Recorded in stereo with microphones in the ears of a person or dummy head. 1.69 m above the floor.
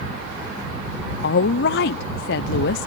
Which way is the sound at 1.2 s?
60° left (ahead or behind).